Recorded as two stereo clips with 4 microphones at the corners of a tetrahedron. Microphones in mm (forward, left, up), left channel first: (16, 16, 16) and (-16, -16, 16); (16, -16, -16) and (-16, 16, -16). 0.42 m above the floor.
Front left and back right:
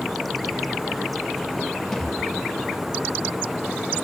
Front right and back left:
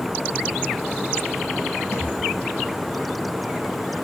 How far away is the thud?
About 8 m.